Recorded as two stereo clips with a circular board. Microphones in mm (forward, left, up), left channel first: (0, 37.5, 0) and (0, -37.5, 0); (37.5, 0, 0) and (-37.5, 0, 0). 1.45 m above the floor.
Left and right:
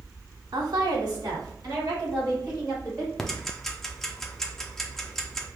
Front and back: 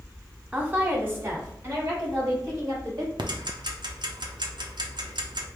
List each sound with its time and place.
0.5 s a woman speaking: 105° right, 0.9 m; by 3.1 s 135° right, 3 m
3.2 s ticking: 175° left, 0.5 m